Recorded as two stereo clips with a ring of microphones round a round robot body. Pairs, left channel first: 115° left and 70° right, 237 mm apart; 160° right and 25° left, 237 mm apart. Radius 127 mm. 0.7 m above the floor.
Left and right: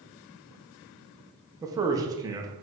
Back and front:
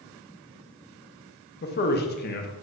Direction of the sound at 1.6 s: 135° right.